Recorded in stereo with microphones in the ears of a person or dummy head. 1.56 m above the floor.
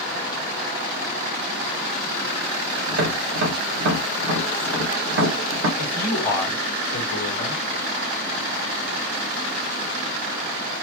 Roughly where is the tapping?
Right.